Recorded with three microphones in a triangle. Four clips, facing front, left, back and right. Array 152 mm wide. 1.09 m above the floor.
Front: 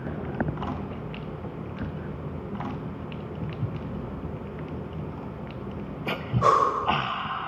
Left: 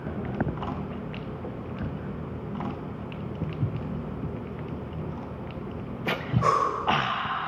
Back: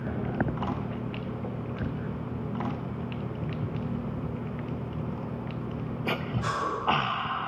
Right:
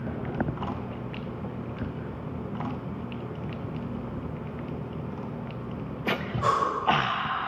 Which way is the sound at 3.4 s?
90° left.